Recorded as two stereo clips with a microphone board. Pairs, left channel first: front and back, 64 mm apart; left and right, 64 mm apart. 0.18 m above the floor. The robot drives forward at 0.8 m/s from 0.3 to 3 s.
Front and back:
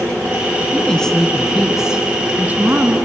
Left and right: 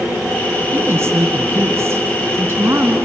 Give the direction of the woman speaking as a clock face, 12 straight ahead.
2 o'clock.